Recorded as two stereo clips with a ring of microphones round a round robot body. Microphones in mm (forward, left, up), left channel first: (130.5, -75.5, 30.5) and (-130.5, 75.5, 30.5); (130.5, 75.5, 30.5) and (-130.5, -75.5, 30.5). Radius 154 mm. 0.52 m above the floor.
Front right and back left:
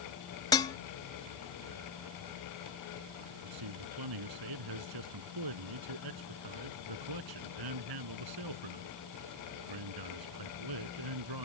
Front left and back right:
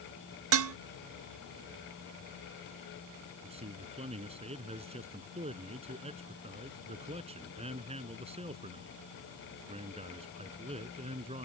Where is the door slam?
No door slam in this recording.